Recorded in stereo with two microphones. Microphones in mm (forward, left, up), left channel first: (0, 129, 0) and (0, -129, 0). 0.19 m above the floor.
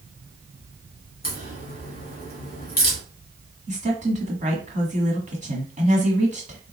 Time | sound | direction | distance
1.2 | a crack | 35° left (ahead or behind) | 1.9 m
3.7 | a woman speaking | 30° right (ahead or behind) | 1.2 m